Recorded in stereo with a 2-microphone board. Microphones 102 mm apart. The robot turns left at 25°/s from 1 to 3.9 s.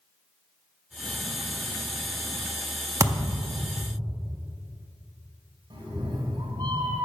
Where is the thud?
30° right (ahead or behind), 0.6 m; by 3.6 s 35° right (ahead or behind), 0.6 m.